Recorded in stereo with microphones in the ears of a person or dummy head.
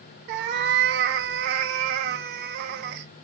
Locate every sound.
0.3 s a cat meowing: 45° right (ahead or behind), 0.6 m